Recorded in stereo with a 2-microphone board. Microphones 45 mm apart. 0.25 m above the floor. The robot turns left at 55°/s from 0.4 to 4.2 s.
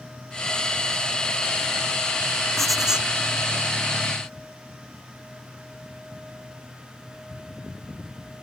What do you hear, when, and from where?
2.6 s writing: 5° left (ahead or behind); by 3.1 s 25° right (ahead or behind)